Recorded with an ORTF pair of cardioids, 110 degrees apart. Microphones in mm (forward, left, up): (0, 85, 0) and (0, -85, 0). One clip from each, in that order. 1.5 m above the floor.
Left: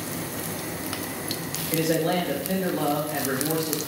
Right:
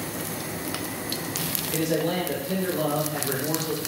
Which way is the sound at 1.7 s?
65° left.